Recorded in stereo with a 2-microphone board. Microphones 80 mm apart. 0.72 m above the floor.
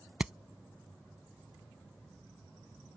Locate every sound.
0.2 s hammering: 10° right (ahead or behind)